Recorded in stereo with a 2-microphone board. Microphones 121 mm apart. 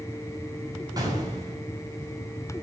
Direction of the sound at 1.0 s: 30° right (ahead or behind).